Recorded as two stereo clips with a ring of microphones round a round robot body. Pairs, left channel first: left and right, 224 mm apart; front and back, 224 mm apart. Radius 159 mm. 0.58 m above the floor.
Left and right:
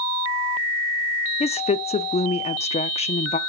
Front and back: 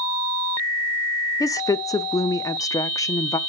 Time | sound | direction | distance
1.4 | a woman speaking | 60° left | 0.8 m